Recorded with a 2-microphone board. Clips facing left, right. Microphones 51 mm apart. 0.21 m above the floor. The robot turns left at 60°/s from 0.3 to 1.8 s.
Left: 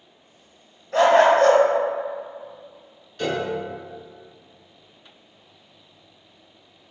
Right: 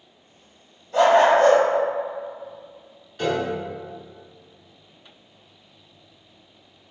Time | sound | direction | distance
0.9 | a dog barking | 110° left | 1.1 m
3.2 | a piano | 10° right (ahead or behind) | 0.9 m